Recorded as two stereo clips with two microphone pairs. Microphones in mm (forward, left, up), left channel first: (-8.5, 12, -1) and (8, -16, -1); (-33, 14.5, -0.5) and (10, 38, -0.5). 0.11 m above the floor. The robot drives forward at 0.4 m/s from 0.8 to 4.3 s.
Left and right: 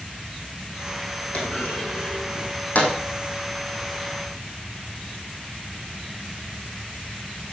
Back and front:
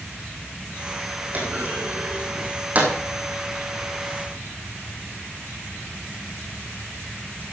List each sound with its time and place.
1.3 s a clunk: 75° left, 4.5 m; by 2.9 s 85° left, 4.5 m